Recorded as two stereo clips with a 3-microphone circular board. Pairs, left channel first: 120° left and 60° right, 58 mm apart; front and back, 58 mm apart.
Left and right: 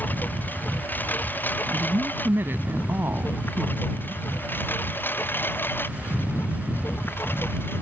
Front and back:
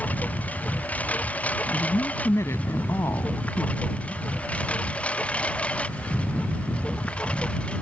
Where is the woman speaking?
20° right.